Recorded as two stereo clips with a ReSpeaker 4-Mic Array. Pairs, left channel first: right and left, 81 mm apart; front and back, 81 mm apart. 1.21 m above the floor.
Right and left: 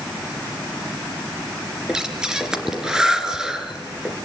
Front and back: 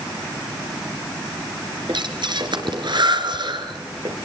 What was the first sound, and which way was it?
Breathing, 170° left.